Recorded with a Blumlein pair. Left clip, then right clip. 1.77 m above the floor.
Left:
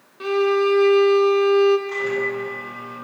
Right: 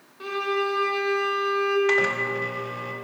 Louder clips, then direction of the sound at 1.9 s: Right 1 dB; 50° right.